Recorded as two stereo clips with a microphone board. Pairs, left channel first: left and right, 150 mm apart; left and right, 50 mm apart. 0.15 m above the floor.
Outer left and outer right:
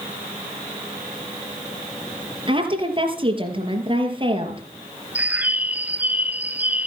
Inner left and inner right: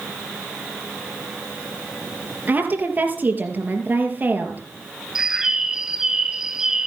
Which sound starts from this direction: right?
A woman speaking, at 2.5 s.